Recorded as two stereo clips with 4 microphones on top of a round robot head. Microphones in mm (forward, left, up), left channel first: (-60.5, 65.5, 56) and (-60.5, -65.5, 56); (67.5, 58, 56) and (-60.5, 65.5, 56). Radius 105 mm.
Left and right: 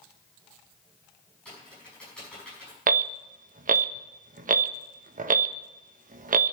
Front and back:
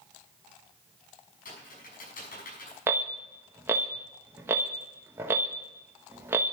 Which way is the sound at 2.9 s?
110° right.